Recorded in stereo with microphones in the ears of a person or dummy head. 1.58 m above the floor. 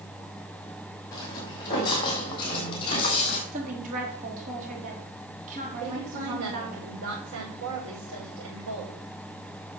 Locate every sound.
1.1 s footsteps: 20° left (ahead or behind), 5 m; by 3.4 s 30° left (ahead or behind), 4 m
3.5 s a woman speaking: 45° right (ahead or behind), 3.5 m
5.8 s a woman speaking: 85° right, 4.5 m